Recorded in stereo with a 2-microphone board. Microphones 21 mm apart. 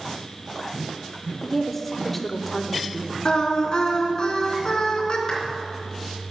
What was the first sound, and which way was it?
A woman speaking, 10° left (ahead or behind).